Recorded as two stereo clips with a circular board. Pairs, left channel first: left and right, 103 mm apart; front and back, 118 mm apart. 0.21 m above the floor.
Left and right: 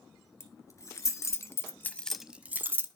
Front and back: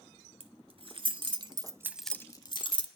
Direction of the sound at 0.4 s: 145° left.